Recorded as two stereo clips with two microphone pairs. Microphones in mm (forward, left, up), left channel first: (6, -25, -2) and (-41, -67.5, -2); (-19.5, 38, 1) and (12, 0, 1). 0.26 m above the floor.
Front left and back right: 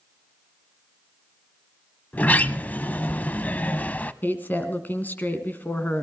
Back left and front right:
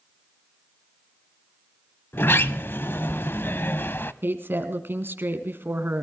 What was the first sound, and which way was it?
A sliding door, 105° left.